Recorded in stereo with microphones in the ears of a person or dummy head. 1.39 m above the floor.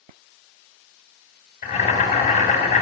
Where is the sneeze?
No sneeze in this recording.